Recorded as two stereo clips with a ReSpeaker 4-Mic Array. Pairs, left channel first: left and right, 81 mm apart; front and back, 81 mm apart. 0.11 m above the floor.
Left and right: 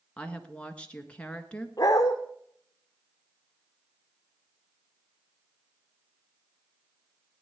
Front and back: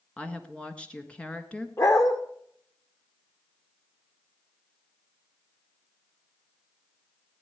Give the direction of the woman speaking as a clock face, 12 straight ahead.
10 o'clock.